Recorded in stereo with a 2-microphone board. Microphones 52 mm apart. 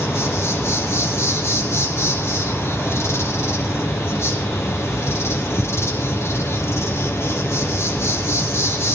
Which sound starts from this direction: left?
An insect, at 0.0 s.